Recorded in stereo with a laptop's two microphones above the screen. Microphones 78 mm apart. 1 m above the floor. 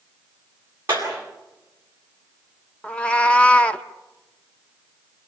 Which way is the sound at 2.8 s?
15° left (ahead or behind).